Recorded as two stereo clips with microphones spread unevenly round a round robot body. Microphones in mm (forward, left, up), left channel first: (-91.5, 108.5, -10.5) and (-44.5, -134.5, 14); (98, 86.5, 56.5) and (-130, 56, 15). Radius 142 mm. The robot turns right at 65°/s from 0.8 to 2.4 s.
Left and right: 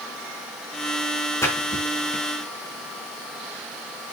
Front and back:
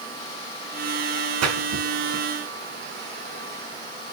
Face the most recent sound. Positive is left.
turn(degrees=-115)